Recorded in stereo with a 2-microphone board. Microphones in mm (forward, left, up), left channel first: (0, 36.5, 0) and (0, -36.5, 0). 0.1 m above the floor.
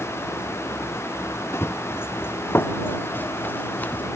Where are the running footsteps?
30° left (ahead or behind); by 4.0 s 20° left (ahead or behind).